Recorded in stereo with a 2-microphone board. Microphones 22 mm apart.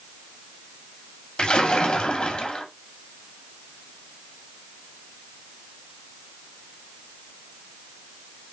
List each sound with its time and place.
1.4 s a splash: 50° left (ahead or behind), 2 m